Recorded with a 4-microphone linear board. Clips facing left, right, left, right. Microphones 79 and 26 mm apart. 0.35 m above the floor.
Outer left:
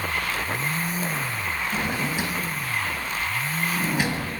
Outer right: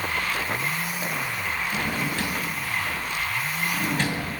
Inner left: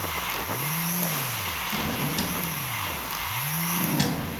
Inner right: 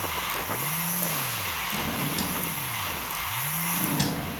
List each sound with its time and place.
1.7 s a drawer: 10° left (ahead or behind), 0.6 m